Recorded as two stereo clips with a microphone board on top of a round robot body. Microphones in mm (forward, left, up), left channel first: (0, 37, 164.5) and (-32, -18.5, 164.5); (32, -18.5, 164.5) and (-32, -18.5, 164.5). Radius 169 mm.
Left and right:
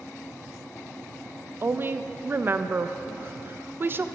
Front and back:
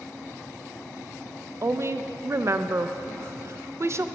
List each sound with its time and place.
1.6 s a woman speaking: 160° right, 0.5 m